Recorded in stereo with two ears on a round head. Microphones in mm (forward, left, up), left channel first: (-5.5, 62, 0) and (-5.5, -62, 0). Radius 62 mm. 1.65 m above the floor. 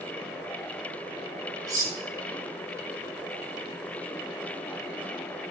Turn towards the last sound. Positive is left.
turn(degrees=-25)  # may be behind; listen again after turning